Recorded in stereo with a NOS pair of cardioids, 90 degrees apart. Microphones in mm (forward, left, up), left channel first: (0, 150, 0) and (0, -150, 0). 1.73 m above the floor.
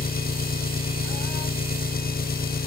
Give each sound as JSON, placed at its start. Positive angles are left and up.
{"t": 0.0, "sound": "an engine running", "azimuth_deg": 30}